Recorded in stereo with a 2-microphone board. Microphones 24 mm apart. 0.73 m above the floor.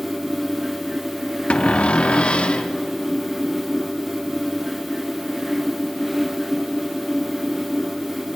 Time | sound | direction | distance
1.5 | a cupboard door | 50° left (ahead or behind) | 1.2 m